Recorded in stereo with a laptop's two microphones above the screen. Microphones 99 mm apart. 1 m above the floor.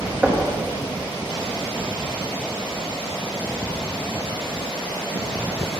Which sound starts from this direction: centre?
Knocking, at 0.2 s.